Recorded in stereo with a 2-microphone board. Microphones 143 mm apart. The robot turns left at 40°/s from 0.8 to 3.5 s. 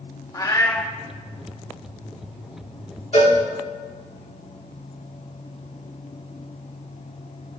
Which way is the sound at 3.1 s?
50° left (ahead or behind).